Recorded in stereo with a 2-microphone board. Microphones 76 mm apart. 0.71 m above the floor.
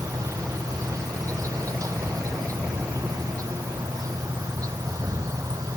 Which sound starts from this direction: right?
An insect, at 0.0 s.